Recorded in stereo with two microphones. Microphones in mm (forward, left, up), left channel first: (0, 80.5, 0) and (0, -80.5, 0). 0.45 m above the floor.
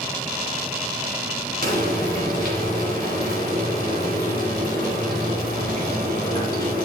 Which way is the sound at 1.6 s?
60° right (ahead or behind).